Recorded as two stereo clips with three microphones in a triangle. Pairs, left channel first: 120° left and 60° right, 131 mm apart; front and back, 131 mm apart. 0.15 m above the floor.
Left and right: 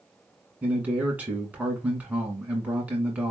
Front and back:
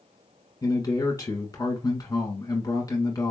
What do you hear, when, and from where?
0.6 s a man speaking: 10° left, 1.4 m